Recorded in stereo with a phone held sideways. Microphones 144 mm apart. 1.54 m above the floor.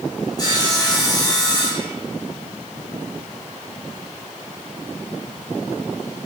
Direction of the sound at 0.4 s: 30° left (ahead or behind).